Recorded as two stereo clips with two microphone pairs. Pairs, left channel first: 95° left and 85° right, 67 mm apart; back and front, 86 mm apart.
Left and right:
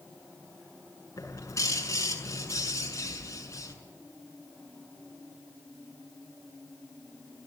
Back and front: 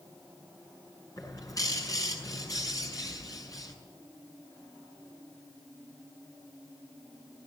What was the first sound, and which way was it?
A bird, 135° left.